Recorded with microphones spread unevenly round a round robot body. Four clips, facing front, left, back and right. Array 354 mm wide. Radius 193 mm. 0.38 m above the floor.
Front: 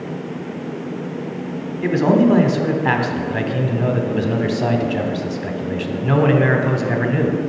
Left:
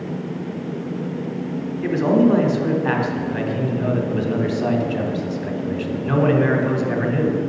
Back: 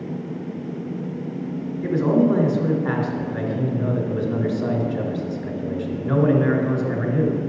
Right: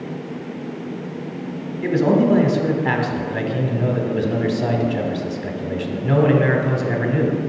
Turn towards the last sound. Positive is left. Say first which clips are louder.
# even, front 4 dB
turn(degrees=-25)